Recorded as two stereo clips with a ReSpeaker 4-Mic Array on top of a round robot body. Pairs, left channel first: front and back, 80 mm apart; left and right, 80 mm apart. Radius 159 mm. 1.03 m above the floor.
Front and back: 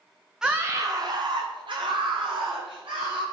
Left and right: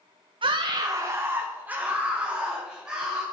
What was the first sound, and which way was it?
A scream, 95° right.